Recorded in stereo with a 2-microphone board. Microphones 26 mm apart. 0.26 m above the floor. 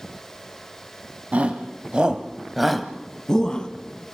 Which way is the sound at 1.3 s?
55° right (ahead or behind).